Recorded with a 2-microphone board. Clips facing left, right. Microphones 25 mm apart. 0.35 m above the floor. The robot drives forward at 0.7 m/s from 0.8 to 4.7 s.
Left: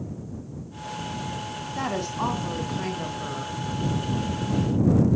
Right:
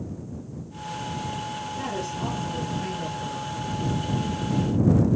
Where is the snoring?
No snoring in this recording.